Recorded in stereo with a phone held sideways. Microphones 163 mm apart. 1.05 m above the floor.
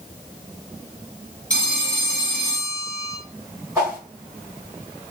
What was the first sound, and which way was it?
A phone ringing, 55° right (ahead or behind).